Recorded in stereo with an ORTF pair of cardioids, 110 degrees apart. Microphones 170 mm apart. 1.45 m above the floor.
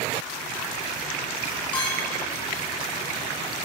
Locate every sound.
1.7 s a clink: 10° left, 5.5 m